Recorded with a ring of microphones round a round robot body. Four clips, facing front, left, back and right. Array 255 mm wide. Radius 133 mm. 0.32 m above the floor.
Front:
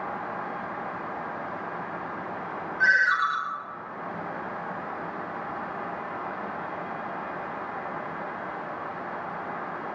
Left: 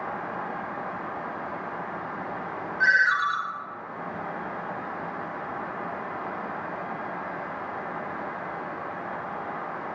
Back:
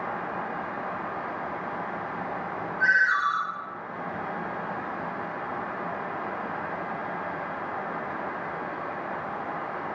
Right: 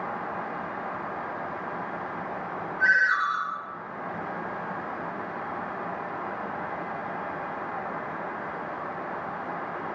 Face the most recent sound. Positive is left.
turn(degrees=65)